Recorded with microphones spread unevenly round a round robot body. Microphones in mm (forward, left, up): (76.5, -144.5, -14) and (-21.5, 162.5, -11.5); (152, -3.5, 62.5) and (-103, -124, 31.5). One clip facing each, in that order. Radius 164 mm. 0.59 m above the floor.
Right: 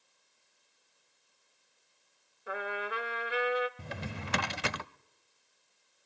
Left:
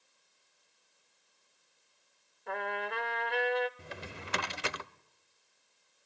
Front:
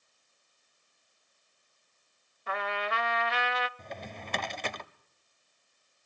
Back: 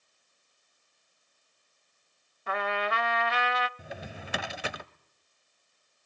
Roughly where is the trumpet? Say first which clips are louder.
Even, back 3 dB; behind right.